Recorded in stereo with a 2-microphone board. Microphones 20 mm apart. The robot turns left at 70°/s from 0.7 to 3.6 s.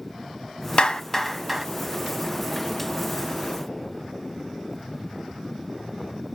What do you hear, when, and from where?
0.8 s a clap: 40° left (ahead or behind), 0.8 m; by 1.6 s 20° right (ahead or behind), 0.8 m